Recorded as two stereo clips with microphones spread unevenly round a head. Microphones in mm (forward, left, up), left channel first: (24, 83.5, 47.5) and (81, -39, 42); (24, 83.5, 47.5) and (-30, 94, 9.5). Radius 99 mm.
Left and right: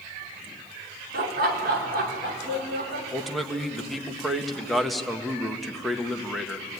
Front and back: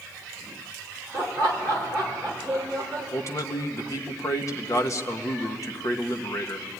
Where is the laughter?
75° right, 3.5 m; by 3.0 s 90° right, 4.5 m.